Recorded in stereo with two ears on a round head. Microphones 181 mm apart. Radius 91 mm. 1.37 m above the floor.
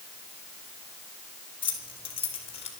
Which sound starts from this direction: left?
Keys jangling, at 1.6 s.